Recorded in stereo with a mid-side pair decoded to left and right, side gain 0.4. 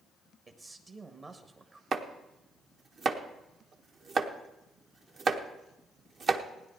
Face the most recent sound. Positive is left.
turn(degrees=-55)